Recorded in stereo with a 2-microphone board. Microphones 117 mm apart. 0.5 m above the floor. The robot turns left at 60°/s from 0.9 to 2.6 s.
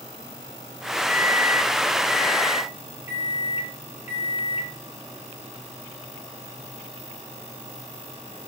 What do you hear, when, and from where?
1.1 s a microwave: 170° right, 7 m; by 4.7 s 95° left, 7 m